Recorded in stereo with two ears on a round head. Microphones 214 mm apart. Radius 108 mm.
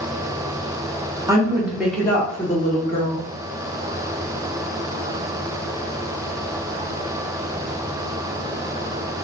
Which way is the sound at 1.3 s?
15° right (ahead or behind).